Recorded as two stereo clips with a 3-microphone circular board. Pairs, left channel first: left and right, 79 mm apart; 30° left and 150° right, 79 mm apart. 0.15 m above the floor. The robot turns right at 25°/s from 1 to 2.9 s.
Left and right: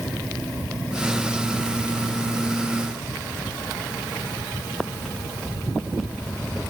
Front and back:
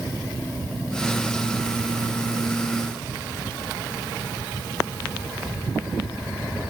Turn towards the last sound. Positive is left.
No sound to turn to.